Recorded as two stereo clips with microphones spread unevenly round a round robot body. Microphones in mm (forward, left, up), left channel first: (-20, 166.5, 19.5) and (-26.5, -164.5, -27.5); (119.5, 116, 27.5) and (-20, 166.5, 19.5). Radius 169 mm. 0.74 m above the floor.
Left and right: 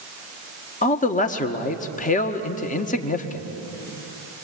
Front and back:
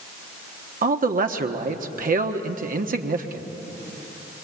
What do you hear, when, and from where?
0.8 s a man speaking: 160° left, 1.4 m